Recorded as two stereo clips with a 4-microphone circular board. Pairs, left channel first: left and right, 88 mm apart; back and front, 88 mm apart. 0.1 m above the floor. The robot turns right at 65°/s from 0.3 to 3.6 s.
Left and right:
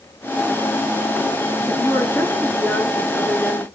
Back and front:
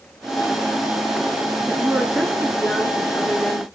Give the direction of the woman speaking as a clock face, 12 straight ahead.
10 o'clock.